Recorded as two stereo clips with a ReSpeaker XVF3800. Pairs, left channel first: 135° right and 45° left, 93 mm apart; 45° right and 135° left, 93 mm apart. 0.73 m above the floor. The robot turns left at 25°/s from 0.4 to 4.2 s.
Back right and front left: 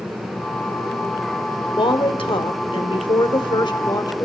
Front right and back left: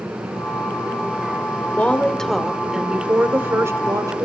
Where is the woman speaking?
120° right, 2.5 m; by 4.3 s straight behind, 2.5 m.